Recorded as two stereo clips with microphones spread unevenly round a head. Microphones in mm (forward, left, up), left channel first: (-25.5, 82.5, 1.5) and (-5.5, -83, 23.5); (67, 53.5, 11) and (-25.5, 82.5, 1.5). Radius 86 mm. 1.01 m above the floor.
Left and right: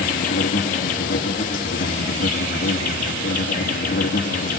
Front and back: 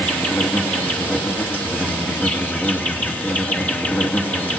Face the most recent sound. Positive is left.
turn(degrees=55)